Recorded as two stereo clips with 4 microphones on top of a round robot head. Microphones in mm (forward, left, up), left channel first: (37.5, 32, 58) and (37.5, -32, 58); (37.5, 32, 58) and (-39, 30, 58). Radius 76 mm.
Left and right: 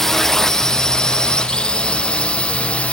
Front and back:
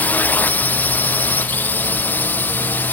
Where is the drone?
15° left; by 2.9 s 40° left.